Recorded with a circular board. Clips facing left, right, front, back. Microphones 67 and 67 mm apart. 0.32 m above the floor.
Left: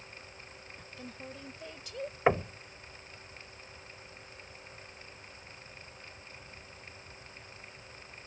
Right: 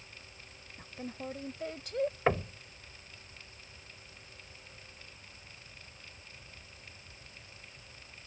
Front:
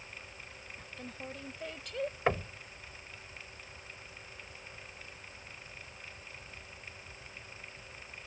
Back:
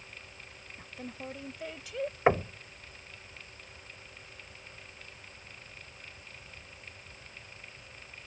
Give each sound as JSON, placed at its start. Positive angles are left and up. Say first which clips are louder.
{"t": 0.8, "sound": "a woman speaking", "louder": "right 6 dB, back 3 dB", "azimuth_deg": -125}
{"t": 2.3, "sound": "knocking", "louder": "left 6 dB, back 7 dB", "azimuth_deg": 150}